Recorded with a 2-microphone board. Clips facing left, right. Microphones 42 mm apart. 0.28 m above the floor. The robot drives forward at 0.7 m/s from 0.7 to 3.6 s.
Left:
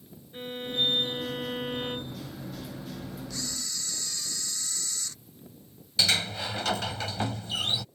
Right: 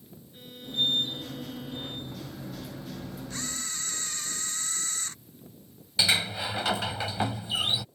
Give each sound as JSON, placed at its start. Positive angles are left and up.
{"t": 0.3, "sound": "a violin", "side_deg": 50}
{"t": 3.3, "sound": "a camera shutter", "side_deg": -40}
{"t": 6.0, "sound": "a sliding door", "side_deg": -15}